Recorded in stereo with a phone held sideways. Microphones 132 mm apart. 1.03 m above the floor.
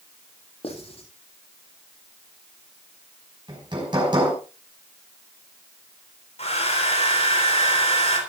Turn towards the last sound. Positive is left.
turn(degrees=55)  # may be behind; listen again after turning